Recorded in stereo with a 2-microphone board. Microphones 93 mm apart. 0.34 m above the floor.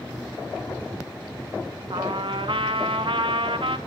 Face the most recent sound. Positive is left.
turn(degrees=-80)